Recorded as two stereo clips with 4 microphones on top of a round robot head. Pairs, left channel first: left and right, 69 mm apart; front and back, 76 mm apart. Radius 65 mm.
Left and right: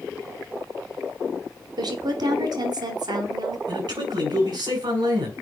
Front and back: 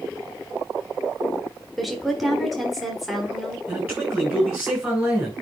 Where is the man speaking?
100° right, 4 m.